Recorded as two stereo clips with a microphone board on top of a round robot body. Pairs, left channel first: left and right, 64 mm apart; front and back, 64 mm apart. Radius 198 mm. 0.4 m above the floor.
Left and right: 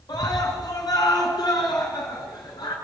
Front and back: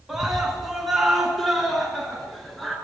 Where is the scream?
95° left, 6 m; by 2.8 s 90° left, 7 m.